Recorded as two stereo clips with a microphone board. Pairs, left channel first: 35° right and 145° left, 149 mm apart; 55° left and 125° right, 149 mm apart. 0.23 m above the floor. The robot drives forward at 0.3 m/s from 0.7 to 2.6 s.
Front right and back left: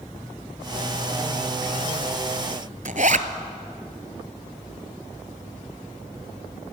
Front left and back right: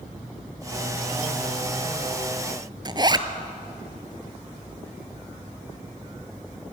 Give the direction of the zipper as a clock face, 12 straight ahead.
6 o'clock.